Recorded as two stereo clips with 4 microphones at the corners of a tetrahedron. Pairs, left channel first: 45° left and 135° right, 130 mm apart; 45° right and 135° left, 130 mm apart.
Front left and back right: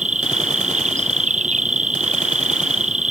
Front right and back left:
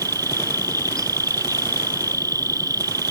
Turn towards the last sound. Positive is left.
turn(degrees=-160)